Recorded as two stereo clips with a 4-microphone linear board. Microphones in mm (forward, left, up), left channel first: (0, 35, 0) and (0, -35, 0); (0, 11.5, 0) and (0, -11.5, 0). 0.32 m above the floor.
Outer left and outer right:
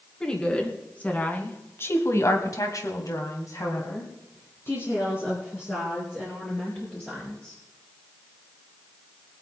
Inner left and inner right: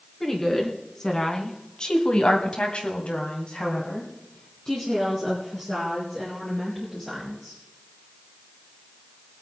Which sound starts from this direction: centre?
A woman speaking, at 0.2 s.